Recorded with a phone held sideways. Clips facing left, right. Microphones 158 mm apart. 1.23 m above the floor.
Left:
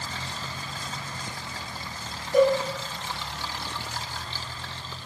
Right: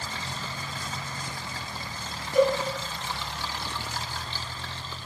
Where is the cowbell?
55° left (ahead or behind), 1.3 m.